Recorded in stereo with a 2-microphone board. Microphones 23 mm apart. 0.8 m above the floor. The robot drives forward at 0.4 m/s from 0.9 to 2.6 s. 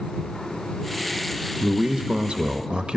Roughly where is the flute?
No flute in this recording.